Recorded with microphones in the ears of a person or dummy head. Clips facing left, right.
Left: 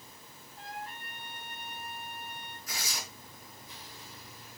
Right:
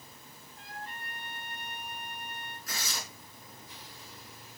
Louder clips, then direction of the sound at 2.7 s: Right 1 dB; 65° right (ahead or behind).